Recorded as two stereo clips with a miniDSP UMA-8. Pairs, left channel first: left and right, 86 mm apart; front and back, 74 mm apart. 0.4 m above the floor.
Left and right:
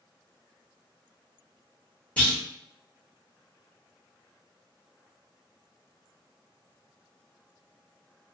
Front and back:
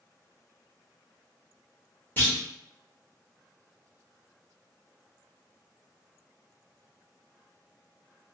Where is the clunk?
30° left, 0.9 m.